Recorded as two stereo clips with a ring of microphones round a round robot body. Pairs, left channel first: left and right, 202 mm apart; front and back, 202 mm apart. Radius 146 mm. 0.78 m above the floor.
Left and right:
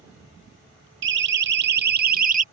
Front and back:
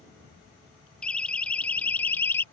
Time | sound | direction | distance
1.0 | a siren | 85° right | ?